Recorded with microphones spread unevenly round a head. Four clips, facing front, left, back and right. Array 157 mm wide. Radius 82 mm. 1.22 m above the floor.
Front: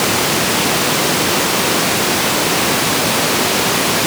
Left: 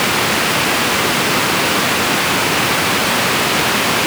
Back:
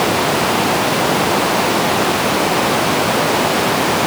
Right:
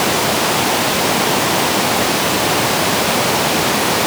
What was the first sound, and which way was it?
Only background noise.